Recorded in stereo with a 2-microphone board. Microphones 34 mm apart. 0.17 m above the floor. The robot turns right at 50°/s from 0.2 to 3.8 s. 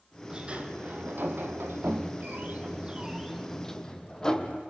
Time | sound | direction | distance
0.3 | a sliding door | 160° right | 1.4 m